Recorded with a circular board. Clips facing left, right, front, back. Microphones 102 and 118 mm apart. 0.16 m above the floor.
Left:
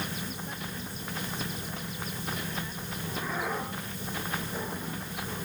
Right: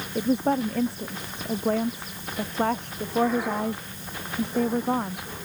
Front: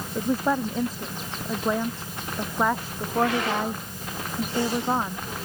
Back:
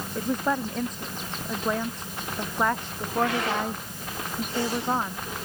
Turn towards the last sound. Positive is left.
turn(degrees=-85)